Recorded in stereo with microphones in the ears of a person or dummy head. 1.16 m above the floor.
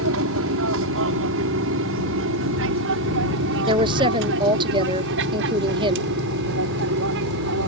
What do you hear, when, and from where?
0.0 s an aircraft: 65° right (ahead or behind); by 7.7 s 60° right (ahead or behind)
3.7 s a woman speaking: 25° right (ahead or behind)